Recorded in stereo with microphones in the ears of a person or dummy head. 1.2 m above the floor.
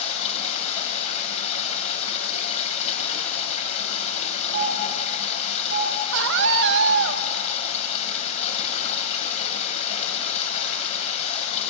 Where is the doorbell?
65° right (ahead or behind), 8 m.